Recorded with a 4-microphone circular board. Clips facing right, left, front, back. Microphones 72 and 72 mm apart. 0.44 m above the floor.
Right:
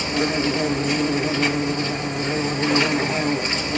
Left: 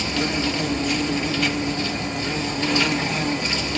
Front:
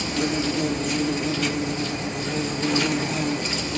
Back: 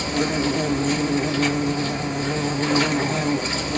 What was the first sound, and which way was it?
An insect, 150° right.